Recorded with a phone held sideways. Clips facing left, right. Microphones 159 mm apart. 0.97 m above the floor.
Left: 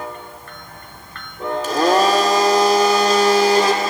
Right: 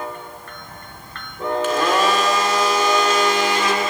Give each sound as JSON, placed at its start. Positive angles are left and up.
{"t": 1.6, "sound": "a blender", "side_deg": 35, "distance_m": 2.0}